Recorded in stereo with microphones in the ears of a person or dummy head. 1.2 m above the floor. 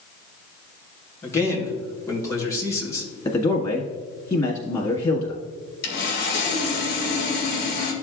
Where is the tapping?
I don't hear tapping.